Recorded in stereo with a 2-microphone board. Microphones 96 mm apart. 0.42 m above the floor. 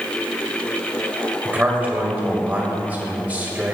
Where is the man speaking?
20° right (ahead or behind), 1.6 m.